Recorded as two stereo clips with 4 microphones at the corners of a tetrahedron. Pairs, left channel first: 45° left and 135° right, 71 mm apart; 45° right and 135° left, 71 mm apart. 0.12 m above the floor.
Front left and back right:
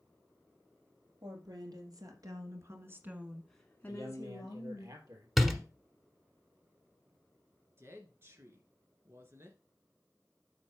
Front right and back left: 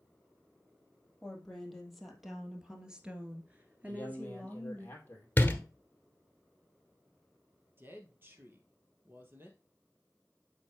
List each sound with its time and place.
1.2 s a woman speaking: 130° right, 3.5 m; by 4.9 s 65° left, 2.5 m
3.9 s a man speaking: 105° right, 3 m
5.4 s a door slam: 55° right, 1.3 m
7.8 s a woman speaking: 175° right, 2.0 m